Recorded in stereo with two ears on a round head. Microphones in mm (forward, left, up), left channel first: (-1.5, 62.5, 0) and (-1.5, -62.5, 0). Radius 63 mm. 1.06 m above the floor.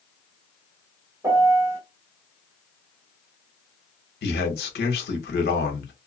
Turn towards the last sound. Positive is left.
turn(degrees=80)